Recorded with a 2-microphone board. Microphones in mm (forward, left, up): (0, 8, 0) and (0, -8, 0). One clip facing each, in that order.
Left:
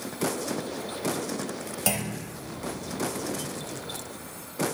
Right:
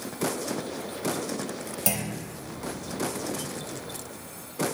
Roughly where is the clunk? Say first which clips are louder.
Left 2 dB; centre.